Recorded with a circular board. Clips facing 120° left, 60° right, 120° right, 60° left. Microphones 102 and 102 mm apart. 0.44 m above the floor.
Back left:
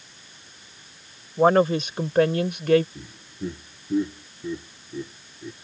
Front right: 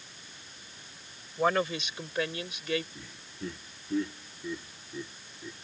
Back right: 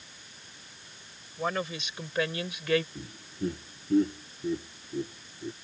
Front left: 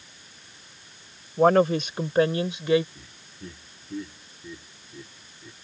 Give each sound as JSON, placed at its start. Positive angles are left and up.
{"t": 1.4, "sound": "a woman speaking", "azimuth_deg": 75}
{"t": 3.0, "sound": "laughter", "azimuth_deg": -170}